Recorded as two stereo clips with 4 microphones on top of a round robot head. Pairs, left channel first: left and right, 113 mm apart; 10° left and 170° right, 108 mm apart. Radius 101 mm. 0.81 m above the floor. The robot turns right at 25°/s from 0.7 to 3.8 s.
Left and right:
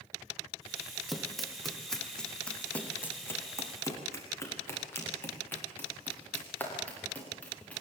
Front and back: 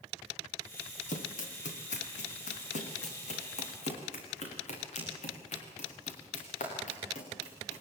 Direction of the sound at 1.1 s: Straight ahead.